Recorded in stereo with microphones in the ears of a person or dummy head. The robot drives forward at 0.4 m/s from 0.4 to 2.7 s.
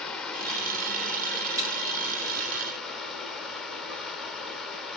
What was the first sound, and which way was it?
Running water, 5° left (ahead or behind).